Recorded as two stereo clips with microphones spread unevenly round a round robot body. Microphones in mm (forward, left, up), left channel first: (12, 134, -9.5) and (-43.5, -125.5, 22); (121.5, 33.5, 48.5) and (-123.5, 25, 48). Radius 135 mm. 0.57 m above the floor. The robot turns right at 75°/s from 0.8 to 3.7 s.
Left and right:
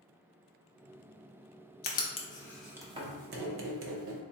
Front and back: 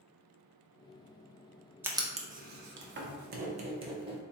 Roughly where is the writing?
Left.